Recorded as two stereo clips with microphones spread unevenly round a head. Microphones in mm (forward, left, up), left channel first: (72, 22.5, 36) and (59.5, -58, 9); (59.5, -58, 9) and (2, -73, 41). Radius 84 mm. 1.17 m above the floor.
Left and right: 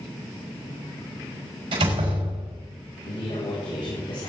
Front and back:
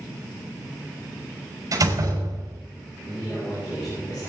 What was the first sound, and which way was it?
A door slam, 140° right.